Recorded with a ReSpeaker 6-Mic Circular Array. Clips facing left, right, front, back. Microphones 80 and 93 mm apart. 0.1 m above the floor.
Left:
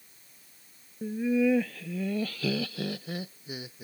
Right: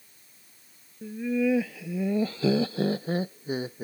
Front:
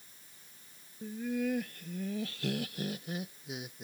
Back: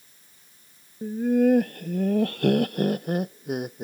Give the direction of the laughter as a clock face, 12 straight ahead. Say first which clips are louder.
Left 1 dB, back 13 dB; 7 o'clock.